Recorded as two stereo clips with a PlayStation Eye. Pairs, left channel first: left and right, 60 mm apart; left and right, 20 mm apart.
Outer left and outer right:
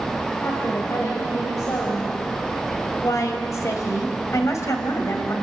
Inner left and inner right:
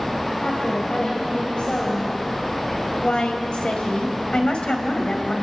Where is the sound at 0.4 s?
65° left (ahead or behind), 3.5 m.